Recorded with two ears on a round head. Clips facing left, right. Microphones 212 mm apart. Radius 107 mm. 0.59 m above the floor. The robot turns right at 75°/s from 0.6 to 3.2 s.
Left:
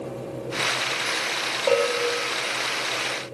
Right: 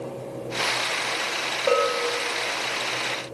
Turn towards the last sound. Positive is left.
turn(degrees=105)